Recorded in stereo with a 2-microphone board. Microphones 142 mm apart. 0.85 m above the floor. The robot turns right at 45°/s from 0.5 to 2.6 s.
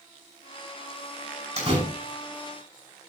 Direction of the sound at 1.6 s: 50° right (ahead or behind).